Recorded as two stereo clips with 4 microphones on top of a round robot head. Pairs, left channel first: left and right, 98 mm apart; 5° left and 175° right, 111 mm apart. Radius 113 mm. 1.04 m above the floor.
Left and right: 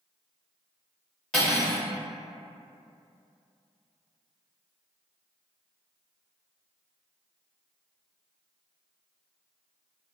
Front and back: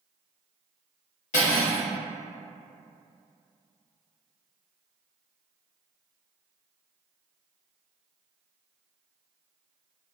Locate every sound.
1.3 s cutlery clinking: 5° left, 1.0 m